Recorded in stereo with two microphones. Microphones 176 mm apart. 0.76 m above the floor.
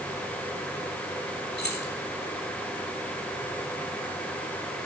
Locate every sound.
1.6 s keys jangling: 75° left (ahead or behind), 4 m